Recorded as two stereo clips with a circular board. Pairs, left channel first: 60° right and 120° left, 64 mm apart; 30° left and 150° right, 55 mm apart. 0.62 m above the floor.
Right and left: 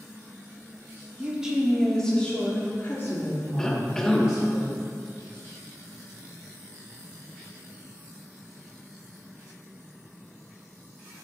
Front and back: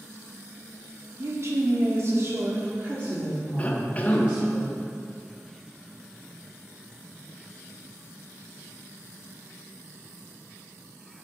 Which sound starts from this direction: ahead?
A cough, at 3.6 s.